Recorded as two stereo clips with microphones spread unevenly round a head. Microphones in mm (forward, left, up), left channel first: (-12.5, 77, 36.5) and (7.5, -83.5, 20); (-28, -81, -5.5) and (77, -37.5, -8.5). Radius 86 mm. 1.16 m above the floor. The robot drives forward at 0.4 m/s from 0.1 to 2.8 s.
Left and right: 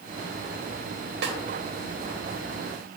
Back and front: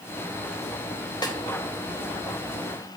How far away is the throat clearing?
I don't hear throat clearing.